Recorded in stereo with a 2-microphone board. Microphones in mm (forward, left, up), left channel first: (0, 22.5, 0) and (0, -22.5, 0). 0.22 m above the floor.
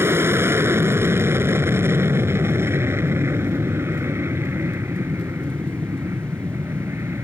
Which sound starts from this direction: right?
An aircraft, at 0.0 s.